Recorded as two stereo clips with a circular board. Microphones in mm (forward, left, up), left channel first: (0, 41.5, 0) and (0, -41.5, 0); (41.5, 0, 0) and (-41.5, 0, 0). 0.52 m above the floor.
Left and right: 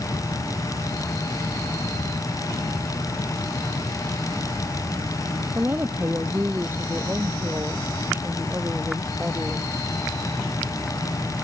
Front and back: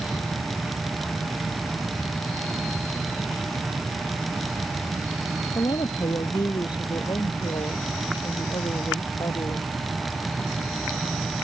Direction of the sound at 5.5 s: 25° right.